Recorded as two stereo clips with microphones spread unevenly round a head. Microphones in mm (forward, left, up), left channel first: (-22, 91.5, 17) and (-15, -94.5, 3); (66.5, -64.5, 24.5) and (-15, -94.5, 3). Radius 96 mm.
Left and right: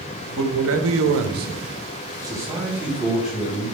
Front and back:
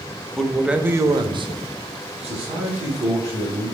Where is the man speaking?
55° right, 0.7 m; by 3.7 s straight behind, 1.8 m.